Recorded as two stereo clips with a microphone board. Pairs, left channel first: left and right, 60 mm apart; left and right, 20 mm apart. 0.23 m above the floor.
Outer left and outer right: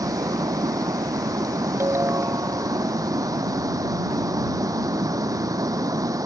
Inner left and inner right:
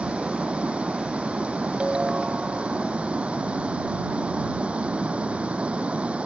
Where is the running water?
75° right (ahead or behind).